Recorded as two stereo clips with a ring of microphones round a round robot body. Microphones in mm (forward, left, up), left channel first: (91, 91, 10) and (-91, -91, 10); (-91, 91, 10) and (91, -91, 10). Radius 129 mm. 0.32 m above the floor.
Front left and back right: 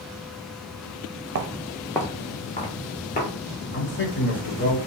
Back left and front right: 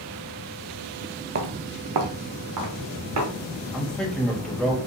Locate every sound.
1.4 s footsteps: 90° right, 0.6 m; by 3.3 s 15° right, 2.5 m
3.7 s a man speaking: 50° left, 1.1 m